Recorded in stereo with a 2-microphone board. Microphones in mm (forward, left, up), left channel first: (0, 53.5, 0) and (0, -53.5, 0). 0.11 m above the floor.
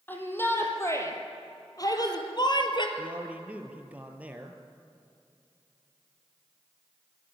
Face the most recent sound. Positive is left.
turn(degrees=-15)  # may be behind; listen again after turning